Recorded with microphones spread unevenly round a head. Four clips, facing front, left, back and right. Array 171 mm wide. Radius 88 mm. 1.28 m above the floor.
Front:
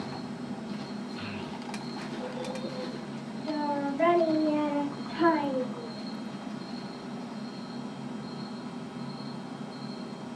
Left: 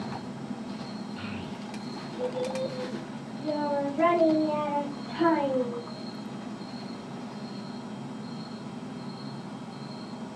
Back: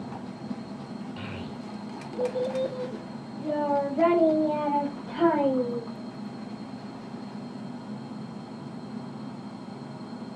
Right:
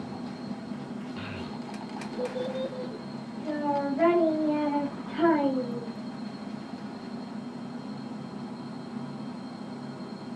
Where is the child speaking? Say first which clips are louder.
Even, even; 160° right, 1.2 m; by 5.9 s 175° left, 3.5 m.